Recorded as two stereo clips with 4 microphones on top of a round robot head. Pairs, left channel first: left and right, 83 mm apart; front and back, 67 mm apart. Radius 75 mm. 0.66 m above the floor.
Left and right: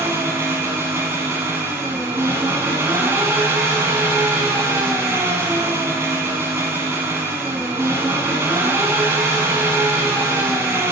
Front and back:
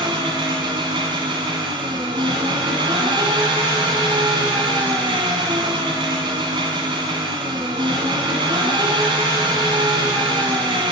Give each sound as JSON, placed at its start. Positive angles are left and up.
{"t": 0.0, "sound": "an engine running", "azimuth_deg": -160, "distance_m": 1.6}